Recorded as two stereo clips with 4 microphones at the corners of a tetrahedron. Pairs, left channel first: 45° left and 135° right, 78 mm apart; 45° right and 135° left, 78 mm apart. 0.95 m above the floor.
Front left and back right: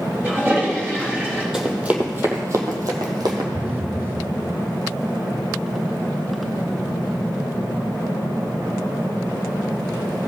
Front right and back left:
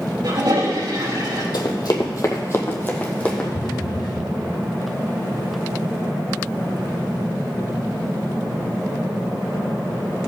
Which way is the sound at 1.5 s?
55° right.